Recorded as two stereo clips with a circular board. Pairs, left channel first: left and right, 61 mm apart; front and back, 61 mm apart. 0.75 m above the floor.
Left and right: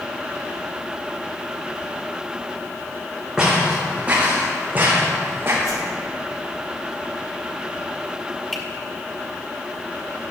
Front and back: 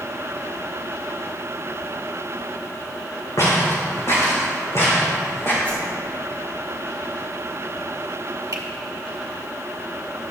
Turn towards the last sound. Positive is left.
turn(degrees=175)